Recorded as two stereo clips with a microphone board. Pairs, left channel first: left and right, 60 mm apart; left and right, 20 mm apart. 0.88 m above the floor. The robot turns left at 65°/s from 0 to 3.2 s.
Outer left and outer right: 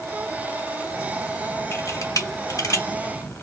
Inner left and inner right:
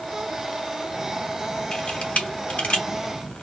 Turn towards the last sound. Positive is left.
turn(degrees=35)  # may be behind; listen again after turning